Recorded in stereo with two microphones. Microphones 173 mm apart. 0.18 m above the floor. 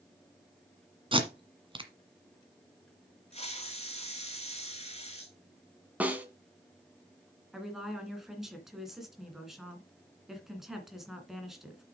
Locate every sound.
1.1 s tape being pulled: 30° right (ahead or behind), 1.6 m
3.3 s a hiss: 40° left (ahead or behind), 1.4 m
6.0 s a snare drum: 10° right (ahead or behind), 1.4 m
7.5 s a woman speaking: centre (ahead or behind), 2.5 m